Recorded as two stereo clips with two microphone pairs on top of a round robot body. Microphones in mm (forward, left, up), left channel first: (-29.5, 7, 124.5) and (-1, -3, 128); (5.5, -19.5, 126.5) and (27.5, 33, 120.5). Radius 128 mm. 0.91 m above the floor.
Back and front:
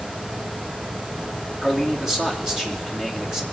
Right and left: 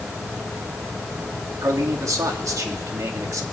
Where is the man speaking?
55° left, 2.5 m.